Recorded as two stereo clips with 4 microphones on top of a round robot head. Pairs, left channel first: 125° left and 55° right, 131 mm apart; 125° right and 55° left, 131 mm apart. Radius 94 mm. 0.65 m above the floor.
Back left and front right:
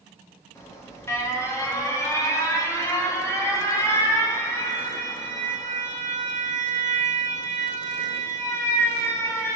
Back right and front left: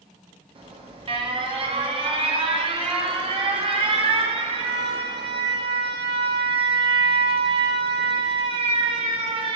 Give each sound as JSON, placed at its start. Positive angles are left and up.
{"t": 0.6, "sound": "an alarm", "azimuth_deg": 70, "distance_m": 1.1}